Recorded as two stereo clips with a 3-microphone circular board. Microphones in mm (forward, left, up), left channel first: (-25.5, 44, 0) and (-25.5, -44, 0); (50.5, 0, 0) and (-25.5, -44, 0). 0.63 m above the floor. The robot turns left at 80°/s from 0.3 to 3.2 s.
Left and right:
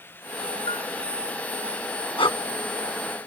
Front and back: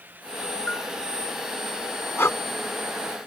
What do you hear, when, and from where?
0.7 s a bell: 110° left; by 0.9 s 90° left
2.2 s breathing: 95° left; by 2.4 s 75° left